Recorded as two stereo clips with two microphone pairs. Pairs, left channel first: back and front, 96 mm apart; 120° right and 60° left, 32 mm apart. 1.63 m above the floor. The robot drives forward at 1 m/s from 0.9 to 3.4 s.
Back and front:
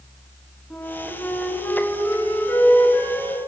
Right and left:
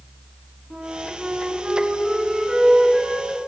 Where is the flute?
105° left, 3.5 m; by 3.4 s 135° left, 4.5 m.